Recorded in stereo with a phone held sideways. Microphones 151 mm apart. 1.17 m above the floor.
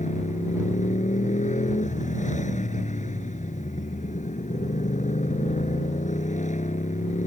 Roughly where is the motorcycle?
Left.